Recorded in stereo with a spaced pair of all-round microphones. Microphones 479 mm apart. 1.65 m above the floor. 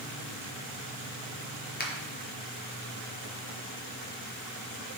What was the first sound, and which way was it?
A finger snap, 20° left (ahead or behind).